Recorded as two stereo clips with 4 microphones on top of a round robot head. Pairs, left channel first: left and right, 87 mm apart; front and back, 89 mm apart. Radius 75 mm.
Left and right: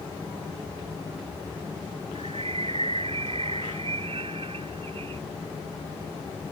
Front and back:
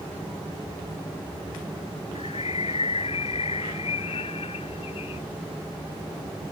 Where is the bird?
45° right.